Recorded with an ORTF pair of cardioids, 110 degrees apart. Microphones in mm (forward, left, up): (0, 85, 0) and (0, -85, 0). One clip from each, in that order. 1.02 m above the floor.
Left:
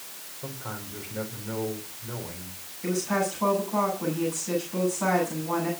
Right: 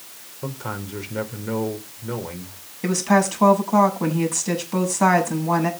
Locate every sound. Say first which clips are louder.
0.4 s a man speaking: right 7 dB; 55° right, 5 m
2.8 s a woman speaking: right 7 dB; 65° right, 7.5 m